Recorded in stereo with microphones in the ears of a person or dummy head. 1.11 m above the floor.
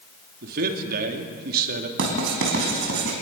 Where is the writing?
70° right (ahead or behind), 5 m.